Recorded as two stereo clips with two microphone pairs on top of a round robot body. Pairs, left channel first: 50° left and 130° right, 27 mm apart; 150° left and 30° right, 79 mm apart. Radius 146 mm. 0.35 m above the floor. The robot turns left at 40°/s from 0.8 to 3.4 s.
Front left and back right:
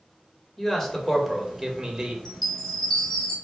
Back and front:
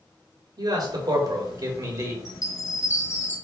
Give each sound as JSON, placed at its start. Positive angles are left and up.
{"t": 0.6, "sound": "a man speaking", "azimuth_deg": -15, "distance_m": 1.6}
{"t": 2.2, "sound": "a chime", "azimuth_deg": 135, "distance_m": 2.0}